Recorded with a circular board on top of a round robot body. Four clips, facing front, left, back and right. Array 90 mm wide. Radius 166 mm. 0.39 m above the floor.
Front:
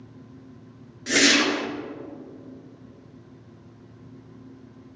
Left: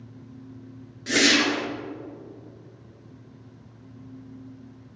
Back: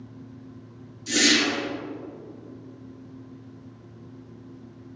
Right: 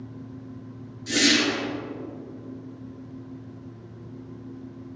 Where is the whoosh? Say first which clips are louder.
Left 1 dB, front 2 dB; 35° left, 1.1 m.